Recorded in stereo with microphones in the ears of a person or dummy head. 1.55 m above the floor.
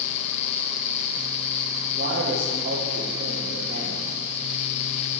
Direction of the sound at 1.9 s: 50° right (ahead or behind).